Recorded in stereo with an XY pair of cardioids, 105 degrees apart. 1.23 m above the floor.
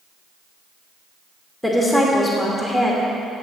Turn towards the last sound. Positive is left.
turn(degrees=0)